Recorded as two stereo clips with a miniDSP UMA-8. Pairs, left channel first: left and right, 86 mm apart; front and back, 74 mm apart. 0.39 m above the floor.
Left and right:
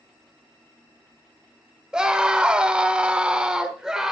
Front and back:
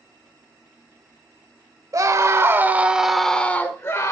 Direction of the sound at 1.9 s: 170° right.